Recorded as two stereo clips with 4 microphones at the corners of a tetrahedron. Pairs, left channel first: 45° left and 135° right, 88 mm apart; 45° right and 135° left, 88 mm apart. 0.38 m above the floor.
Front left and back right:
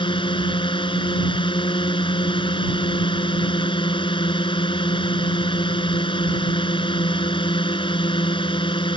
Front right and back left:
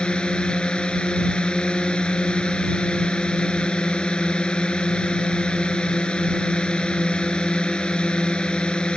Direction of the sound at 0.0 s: 35° left.